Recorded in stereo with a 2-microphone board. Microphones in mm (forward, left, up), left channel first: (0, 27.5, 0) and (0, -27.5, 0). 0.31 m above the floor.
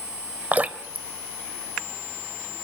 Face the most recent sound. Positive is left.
turn(degrees=-30)  # may be behind; listen again after turning